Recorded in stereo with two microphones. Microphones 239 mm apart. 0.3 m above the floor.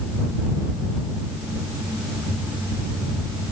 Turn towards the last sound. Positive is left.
No sound to turn to.